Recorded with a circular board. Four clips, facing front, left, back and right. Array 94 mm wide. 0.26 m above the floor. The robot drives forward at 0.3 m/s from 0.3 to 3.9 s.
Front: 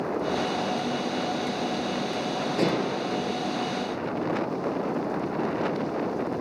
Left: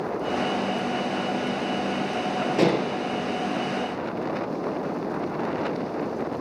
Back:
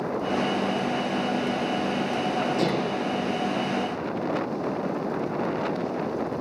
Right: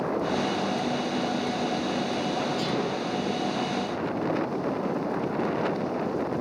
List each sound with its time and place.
2.6 s dishes clattering: 80° left, 4 m